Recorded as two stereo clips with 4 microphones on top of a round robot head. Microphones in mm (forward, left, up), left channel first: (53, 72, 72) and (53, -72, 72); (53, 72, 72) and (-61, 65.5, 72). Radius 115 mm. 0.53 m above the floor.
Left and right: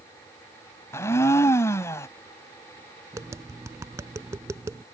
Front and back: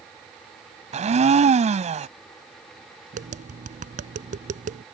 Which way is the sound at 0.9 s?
165° left.